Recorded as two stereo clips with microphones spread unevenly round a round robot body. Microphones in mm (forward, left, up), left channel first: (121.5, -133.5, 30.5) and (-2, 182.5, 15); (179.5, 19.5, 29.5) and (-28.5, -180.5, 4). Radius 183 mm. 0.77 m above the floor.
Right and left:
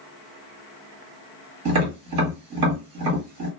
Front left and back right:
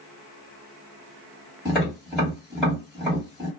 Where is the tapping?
135° left, 1.5 m.